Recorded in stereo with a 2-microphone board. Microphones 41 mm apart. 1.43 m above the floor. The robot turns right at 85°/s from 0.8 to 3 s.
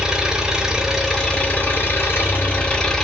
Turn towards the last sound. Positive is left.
turn(degrees=170)